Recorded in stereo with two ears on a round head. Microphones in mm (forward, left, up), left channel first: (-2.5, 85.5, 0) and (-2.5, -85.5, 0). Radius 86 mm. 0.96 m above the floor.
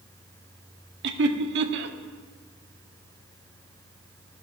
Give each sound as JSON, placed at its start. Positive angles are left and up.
{"t": 1.0, "sound": "laughter", "side_deg": -60, "distance_m": 1.5}